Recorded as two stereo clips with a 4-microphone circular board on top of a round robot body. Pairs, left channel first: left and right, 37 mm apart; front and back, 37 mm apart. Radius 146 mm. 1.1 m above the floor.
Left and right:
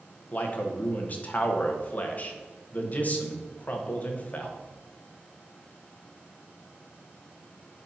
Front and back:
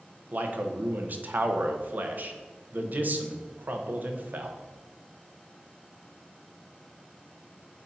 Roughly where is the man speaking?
Behind left.